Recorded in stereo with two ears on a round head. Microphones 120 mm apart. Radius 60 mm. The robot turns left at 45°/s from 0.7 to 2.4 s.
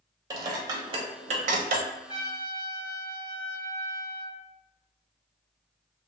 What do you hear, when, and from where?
0.3 s dishes clattering: 30° right (ahead or behind), 0.6 m; by 1.9 s 70° right (ahead or behind), 0.6 m
2.1 s a trumpet: 35° left (ahead or behind), 1.2 m; by 4.4 s 25° left (ahead or behind), 1.2 m